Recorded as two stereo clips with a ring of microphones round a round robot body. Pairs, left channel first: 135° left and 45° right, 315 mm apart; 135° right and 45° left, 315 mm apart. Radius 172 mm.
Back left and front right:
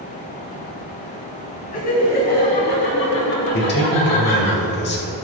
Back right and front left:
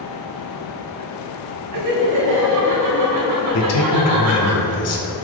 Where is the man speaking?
170° right, 3 m.